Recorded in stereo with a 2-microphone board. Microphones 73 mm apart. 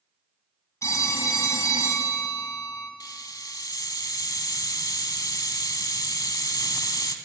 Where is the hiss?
65° left (ahead or behind), 0.7 m.